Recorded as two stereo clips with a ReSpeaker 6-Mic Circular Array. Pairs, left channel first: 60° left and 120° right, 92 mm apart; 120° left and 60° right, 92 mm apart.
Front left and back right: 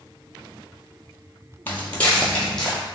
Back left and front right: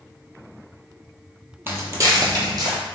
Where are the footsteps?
5° right, 0.5 m; by 2.8 s 25° right, 1.0 m.